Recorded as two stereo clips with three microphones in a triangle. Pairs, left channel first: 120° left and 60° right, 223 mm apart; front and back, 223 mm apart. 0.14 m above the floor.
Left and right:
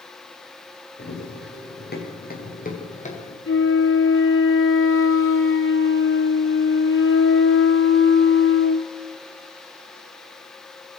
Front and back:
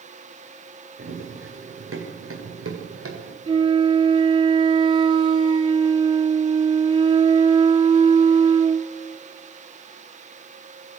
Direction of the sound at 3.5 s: 115° left.